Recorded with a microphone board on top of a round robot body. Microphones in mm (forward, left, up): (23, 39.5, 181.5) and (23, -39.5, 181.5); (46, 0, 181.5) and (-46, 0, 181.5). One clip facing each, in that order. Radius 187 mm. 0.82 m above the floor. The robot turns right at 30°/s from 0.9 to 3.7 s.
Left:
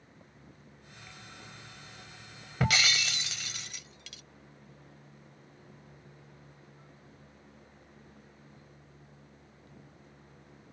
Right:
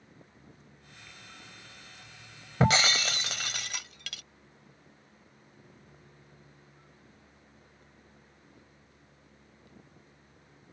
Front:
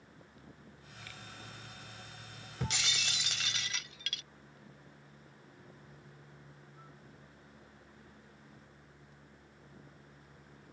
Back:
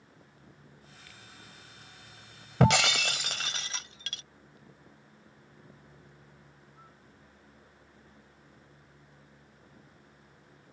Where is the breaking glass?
155° right; by 4.2 s 120° right.